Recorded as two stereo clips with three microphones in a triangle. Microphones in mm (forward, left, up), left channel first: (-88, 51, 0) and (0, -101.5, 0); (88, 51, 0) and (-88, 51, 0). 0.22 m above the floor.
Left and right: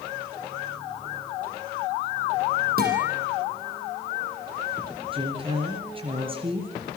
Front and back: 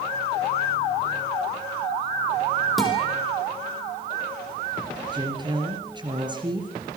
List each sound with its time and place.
2.8 s a guitar: 90° right, 6.5 m
5.1 s a woman speaking: 120° right, 3.5 m